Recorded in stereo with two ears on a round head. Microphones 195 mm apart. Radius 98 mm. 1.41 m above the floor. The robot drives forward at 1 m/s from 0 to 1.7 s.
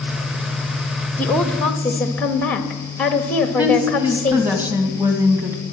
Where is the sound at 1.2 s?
10° left (ahead or behind), 1.2 m; by 4.6 s 5° left (ahead or behind), 1.7 m.